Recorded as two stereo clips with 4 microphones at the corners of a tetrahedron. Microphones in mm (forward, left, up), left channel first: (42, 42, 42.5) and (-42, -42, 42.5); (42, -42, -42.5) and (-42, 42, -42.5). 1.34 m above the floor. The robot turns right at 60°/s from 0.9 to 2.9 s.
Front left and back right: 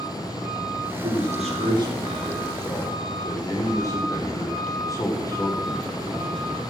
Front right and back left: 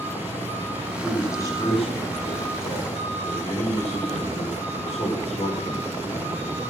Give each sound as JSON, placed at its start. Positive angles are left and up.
{"t": 1.0, "sound": "a man speaking", "azimuth_deg": -130, "distance_m": 5.5}